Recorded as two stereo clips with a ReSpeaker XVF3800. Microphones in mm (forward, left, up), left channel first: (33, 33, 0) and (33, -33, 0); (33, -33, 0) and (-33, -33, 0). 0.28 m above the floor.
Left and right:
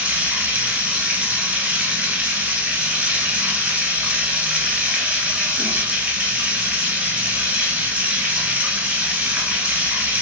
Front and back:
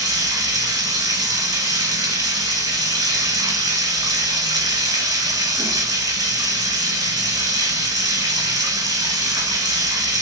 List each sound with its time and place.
0.0 s running water: 155° right, 1.2 m